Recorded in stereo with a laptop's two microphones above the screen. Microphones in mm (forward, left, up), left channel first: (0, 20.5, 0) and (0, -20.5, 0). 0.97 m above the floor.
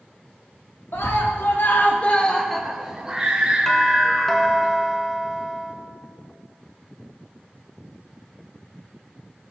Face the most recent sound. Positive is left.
turn(degrees=10)  # may be behind; listen again after turning